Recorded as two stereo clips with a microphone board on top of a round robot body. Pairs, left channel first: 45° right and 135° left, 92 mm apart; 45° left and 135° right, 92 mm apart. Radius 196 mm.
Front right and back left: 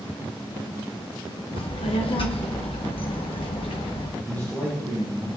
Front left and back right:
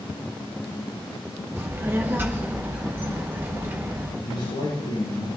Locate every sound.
1.6 s a child speaking: 70° right, 1.1 m
4.2 s a man speaking: 25° left, 6 m